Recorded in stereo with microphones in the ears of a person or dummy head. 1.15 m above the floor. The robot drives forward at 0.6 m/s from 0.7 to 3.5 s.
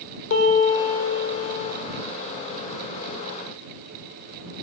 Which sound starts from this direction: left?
A piano, at 0.3 s.